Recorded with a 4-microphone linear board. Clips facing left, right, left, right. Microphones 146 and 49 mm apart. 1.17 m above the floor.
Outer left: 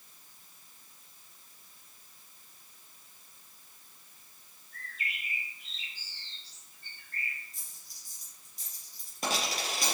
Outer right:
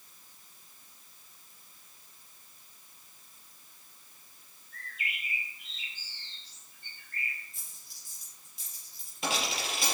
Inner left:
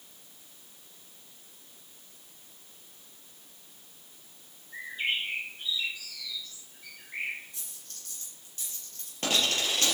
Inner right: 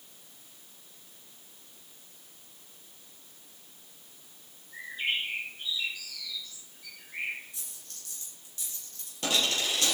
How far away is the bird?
About 5 m.